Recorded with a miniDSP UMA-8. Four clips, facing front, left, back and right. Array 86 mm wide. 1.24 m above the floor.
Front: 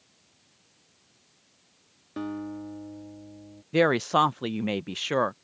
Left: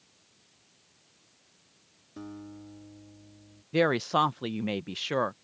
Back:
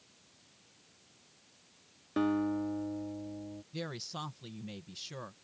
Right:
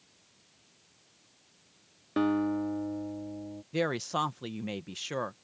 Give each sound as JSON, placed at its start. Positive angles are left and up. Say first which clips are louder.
{"t": 2.2, "sound": "a guitar", "louder": "right 16 dB, back 4 dB", "azimuth_deg": -100}
{"t": 3.7, "sound": "a woman speaking", "louder": "left 6 dB, front 22 dB", "azimuth_deg": 20}